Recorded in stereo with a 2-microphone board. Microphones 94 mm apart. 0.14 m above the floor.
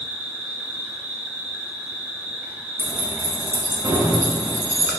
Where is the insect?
20° right (ahead or behind), 1.2 m.